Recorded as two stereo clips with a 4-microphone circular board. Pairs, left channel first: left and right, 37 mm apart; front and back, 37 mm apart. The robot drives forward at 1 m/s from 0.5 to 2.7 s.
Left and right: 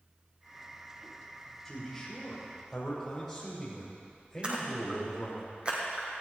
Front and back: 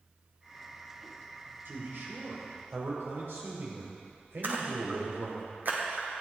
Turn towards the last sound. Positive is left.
turn(degrees=-150)